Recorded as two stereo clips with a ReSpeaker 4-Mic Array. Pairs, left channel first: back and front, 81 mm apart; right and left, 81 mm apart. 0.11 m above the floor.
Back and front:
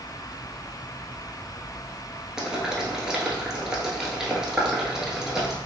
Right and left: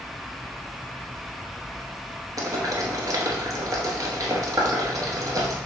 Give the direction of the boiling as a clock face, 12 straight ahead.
9 o'clock.